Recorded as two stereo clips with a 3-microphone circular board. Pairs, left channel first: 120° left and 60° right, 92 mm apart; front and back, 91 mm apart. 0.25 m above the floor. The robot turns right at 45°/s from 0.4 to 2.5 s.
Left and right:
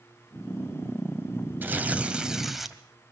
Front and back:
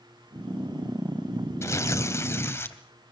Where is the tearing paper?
15° right, 1.7 m; by 2.8 s 25° left, 1.7 m.